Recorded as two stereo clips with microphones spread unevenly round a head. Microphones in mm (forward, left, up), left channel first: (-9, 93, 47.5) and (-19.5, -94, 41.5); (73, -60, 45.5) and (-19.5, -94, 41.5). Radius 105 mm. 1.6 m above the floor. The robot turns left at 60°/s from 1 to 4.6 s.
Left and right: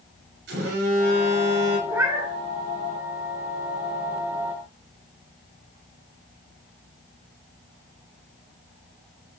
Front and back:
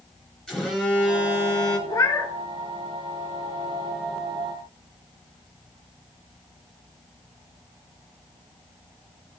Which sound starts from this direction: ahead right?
A phone buzzing, at 0.5 s.